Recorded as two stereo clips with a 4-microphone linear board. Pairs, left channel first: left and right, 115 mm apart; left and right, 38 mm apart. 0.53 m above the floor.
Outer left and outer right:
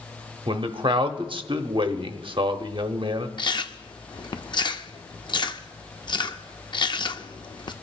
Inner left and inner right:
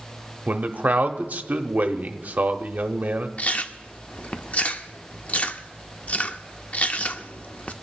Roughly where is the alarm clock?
No alarm clock in this recording.